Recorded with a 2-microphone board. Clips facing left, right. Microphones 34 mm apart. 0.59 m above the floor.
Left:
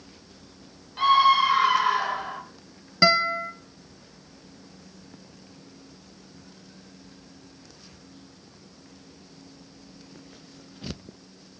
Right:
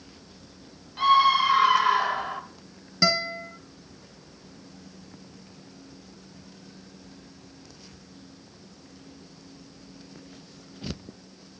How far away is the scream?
About 2.5 m.